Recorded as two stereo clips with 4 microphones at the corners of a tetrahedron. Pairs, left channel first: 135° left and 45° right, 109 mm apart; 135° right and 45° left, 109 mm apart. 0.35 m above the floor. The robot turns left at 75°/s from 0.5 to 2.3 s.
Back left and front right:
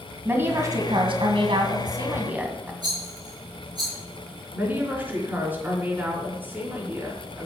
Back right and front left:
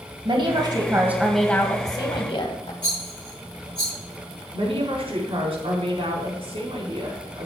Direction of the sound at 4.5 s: 25° left.